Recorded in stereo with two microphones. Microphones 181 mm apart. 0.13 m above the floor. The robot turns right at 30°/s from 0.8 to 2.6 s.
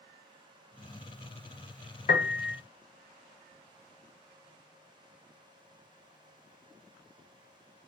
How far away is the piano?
About 0.5 m.